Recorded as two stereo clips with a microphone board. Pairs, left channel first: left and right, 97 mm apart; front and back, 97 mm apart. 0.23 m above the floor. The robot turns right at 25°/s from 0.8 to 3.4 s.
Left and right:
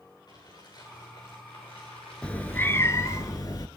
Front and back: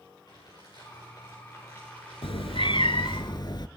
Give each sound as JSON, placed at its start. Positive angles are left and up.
{"t": 0.3, "sound": "crumpling", "azimuth_deg": 50, "distance_m": 8.0}
{"t": 2.2, "sound": "a cat meowing", "azimuth_deg": 10, "distance_m": 0.6}